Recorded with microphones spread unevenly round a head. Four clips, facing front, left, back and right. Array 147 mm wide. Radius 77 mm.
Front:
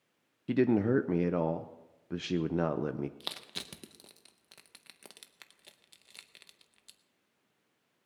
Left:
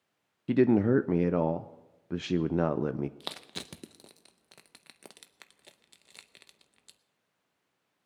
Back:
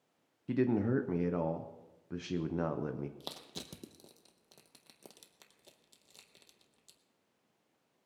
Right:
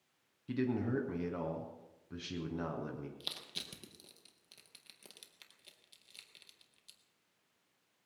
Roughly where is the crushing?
Left.